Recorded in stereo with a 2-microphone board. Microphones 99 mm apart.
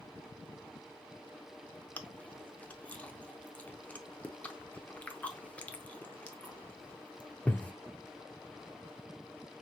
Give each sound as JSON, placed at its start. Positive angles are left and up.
{"t": 2.0, "sound": "chewing", "side_deg": 15, "distance_m": 0.5}